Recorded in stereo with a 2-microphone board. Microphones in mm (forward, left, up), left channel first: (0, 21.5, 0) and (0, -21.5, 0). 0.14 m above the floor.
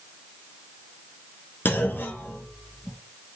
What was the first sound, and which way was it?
A clunk, 50° left (ahead or behind).